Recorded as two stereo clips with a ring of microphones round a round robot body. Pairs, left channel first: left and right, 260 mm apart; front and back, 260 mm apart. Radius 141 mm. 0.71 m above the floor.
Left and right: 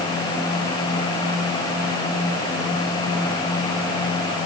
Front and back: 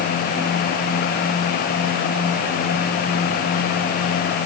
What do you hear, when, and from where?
Only background noise.